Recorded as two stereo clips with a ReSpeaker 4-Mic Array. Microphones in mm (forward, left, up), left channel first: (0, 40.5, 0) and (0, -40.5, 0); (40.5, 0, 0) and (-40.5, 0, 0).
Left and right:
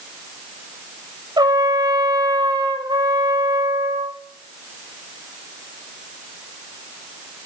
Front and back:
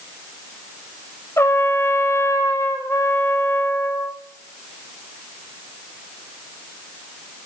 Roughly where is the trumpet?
Ahead right.